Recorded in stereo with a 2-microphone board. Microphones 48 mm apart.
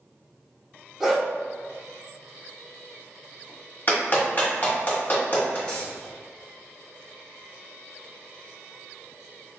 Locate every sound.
1.0 s a dog barking: centre (ahead or behind), 1.1 m
3.9 s a clap: 35° left (ahead or behind), 1.5 m
5.7 s a dropped coin: 15° left (ahead or behind), 1.4 m